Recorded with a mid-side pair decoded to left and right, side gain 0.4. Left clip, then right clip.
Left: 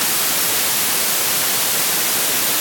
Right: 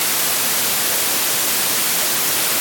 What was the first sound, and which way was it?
Only background noise.